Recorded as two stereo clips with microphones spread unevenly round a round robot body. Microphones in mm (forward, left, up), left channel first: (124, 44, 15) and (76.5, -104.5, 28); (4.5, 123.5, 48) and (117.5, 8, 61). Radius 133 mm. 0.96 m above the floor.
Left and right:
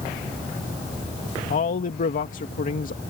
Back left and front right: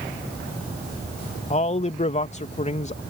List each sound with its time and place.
1.5 s a man speaking: 95° left